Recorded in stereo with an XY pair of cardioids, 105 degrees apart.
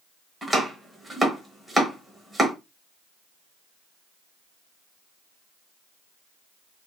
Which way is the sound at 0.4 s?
10° right.